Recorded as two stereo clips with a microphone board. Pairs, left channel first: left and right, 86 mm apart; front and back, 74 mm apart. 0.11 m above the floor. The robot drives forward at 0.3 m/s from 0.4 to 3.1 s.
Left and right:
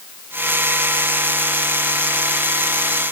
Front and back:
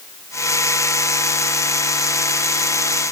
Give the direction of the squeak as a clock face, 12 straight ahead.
I don't hear a squeak.